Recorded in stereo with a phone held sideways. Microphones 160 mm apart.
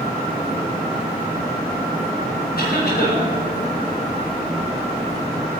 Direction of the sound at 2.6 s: 80° left.